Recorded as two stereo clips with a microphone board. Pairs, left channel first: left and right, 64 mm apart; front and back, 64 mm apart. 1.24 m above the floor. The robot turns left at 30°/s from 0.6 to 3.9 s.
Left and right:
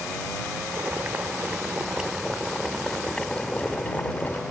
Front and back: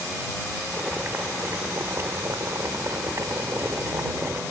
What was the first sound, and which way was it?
Boiling, 125° right.